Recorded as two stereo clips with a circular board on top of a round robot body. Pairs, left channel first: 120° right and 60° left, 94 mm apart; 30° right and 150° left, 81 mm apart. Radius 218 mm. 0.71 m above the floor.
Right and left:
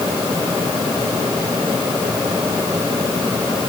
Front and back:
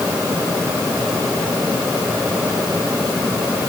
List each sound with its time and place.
Only background noise.